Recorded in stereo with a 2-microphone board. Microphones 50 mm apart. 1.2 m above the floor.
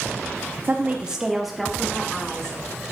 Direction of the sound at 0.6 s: 45° right (ahead or behind).